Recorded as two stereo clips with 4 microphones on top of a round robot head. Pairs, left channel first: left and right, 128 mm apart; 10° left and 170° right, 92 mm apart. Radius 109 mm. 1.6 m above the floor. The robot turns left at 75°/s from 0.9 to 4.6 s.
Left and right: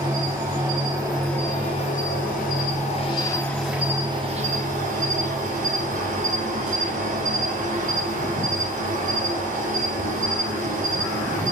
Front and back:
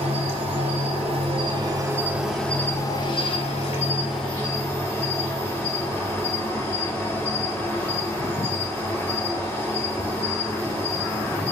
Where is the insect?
150° right, 3.5 m; by 11.5 s 70° right, 3.5 m.